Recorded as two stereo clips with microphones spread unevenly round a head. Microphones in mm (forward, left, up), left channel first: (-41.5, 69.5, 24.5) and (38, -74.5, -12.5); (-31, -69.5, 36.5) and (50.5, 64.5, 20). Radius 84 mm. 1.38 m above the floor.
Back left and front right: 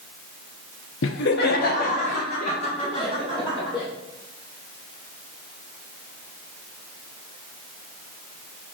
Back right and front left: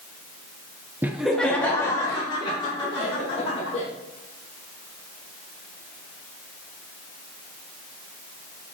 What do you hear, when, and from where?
1.0 s laughter: 135° left, 0.7 m; by 3.9 s straight behind, 2.5 m